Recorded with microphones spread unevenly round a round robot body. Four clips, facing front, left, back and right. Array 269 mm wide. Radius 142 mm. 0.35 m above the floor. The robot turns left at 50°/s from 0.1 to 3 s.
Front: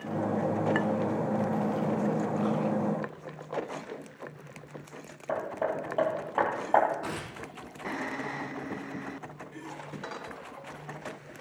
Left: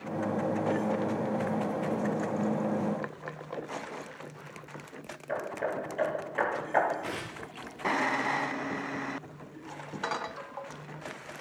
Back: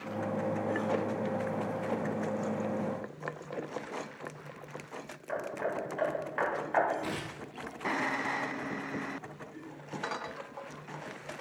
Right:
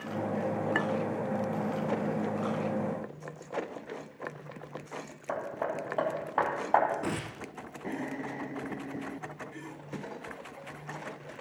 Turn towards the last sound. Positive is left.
turn(degrees=-95)